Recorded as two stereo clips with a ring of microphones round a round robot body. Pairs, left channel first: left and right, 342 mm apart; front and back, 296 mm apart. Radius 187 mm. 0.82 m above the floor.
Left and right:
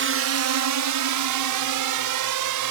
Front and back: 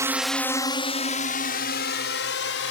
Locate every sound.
0.0 s a drone: 105° right; by 2.7 s 55° right